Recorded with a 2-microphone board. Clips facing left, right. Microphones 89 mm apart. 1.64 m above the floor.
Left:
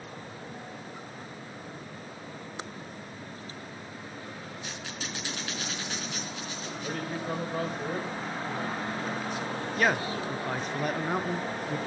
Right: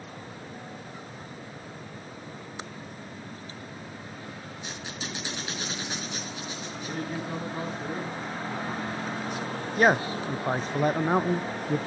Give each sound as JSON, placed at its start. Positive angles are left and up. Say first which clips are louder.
{"t": 4.6, "sound": "a squeak", "louder": "right 3 dB", "side_deg": -20, "distance_m": 3.5}
{"t": 6.8, "sound": "a man speaking", "louder": "even", "side_deg": 60, "distance_m": 7.0}
{"t": 9.8, "sound": "a man speaking", "louder": "right 5 dB", "side_deg": -30, "distance_m": 0.5}